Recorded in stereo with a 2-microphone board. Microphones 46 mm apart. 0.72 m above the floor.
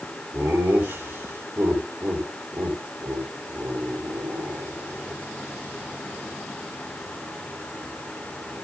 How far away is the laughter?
About 5 m.